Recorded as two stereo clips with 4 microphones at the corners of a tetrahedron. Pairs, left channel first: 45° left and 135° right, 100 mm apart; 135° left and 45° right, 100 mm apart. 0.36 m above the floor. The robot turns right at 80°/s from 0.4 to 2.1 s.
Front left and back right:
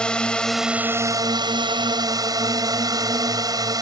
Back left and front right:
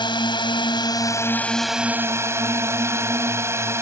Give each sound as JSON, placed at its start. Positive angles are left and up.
{"t": 0.0, "sound": "a drone", "azimuth_deg": 125}